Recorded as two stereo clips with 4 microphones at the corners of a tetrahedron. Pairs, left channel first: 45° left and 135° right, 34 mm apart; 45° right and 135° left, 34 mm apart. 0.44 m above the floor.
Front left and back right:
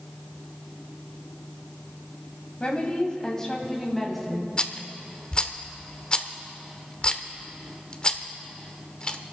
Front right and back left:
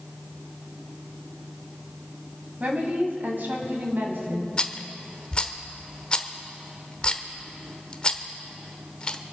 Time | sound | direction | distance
2.6 | a woman speaking | 100° left | 2.5 m
4.6 | a rattle | 5° left | 0.8 m